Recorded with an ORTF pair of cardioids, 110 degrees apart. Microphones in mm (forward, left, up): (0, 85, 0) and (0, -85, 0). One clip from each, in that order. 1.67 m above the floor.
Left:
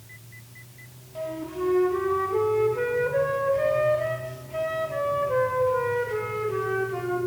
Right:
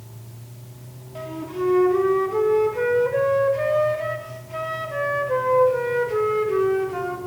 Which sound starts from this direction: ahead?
A flute, at 1.1 s.